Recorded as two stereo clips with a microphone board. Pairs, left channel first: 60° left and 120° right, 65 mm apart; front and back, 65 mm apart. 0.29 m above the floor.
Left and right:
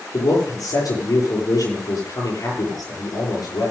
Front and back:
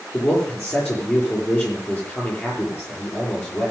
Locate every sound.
0.1 s a man speaking: 60° left, 7 m